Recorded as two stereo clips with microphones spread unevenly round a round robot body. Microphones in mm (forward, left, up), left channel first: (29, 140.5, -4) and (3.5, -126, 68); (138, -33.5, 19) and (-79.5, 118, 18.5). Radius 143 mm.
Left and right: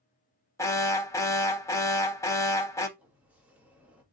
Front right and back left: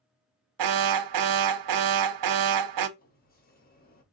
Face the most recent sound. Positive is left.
turn(degrees=5)